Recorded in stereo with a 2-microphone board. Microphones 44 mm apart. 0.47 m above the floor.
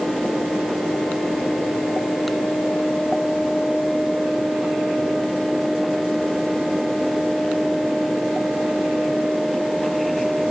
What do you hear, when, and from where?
Only background noise.